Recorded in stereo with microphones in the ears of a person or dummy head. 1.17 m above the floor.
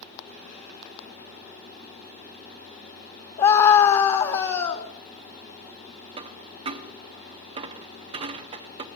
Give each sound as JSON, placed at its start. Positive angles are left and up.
{"t": 3.4, "sound": "a scream", "side_deg": 30, "distance_m": 1.8}
{"t": 6.2, "sound": "a dropped coin", "side_deg": -30, "distance_m": 0.8}